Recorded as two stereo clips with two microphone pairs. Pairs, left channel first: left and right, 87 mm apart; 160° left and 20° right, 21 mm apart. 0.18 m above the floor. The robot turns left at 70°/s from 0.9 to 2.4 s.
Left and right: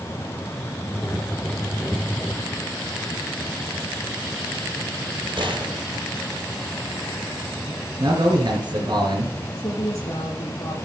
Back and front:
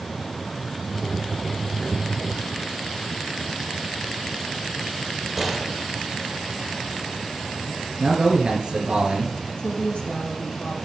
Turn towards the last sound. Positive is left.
turn(degrees=140)